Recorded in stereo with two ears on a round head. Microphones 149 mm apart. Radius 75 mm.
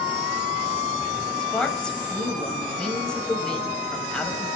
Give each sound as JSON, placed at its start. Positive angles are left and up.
{"t": 1.4, "sound": "a woman speaking", "side_deg": 5, "distance_m": 5.0}